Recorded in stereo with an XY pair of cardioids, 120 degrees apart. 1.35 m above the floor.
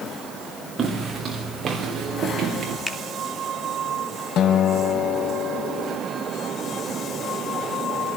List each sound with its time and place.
0.8 s footsteps: 35° right, 5 m; by 2.8 s 45° right, 6 m
2.9 s a finger snap: 20° left, 3 m
4.4 s a guitar: 70° left, 1.4 m